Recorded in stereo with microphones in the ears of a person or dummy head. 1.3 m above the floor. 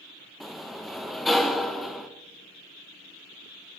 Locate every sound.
0.4 s a sliding door: 5° left (ahead or behind), 0.6 m